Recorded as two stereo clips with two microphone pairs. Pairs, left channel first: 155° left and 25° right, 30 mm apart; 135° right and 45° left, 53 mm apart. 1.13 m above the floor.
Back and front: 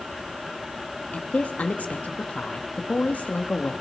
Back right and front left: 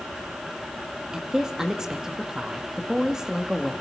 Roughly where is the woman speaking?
Behind left.